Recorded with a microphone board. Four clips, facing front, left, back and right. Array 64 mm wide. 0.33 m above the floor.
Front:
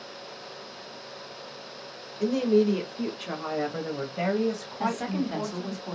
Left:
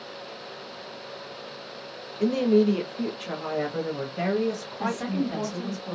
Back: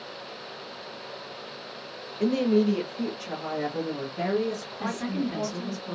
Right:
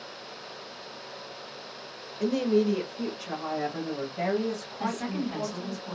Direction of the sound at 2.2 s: 155° left.